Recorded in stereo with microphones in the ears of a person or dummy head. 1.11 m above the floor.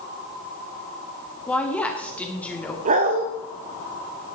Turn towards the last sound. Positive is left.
turn(degrees=-35)  # may be behind; listen again after turning